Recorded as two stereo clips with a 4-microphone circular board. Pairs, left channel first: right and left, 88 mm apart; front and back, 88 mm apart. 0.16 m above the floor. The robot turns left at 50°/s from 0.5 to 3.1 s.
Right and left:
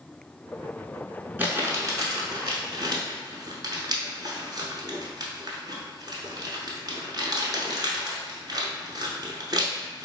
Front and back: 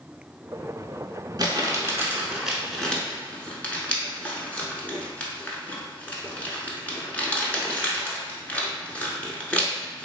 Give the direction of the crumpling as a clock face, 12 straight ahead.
7 o'clock.